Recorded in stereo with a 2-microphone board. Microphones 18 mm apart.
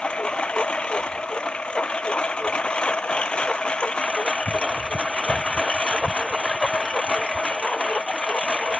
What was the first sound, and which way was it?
A lawn mower, 75° left (ahead or behind).